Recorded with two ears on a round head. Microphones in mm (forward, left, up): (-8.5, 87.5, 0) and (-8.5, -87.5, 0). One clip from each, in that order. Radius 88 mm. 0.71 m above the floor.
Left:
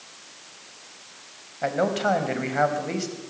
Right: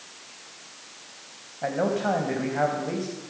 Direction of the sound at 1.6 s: 75° left (ahead or behind).